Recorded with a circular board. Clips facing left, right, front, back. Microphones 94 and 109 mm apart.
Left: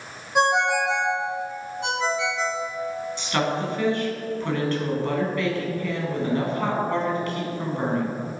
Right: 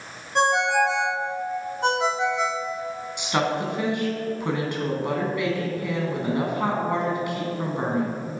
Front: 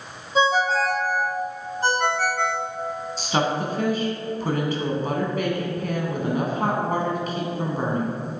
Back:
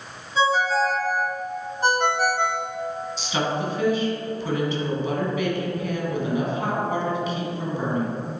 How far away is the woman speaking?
About 2.0 m.